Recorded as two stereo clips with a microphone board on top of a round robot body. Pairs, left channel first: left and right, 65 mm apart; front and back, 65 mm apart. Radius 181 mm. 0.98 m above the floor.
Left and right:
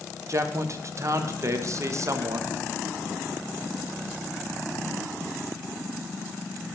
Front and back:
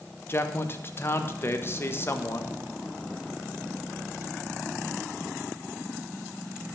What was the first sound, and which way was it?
A man speaking, 55° right.